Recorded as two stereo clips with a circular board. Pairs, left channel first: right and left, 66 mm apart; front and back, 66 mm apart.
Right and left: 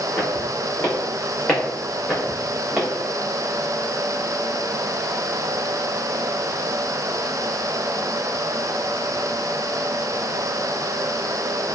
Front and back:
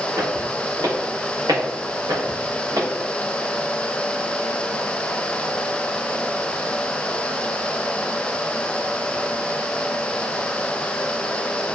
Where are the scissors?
I don't hear scissors.